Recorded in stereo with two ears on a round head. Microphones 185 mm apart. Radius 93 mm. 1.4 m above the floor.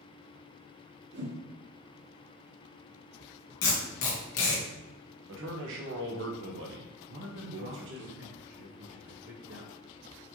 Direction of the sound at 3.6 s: 70° left (ahead or behind).